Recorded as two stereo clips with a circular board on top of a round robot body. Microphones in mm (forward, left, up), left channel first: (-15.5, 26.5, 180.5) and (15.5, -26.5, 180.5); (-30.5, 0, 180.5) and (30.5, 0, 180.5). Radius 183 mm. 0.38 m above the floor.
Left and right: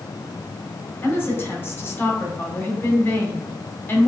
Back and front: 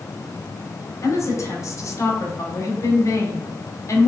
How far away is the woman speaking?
About 1.5 m.